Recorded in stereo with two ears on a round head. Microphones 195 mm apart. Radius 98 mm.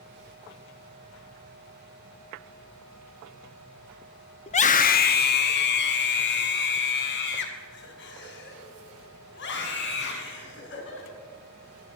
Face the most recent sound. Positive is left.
turn(degrees=60)  # may be behind; listen again after turning